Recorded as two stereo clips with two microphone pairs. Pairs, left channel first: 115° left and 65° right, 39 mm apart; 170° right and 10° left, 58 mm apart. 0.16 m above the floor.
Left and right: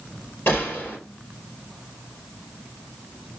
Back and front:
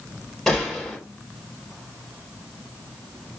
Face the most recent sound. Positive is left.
turn(degrees=105)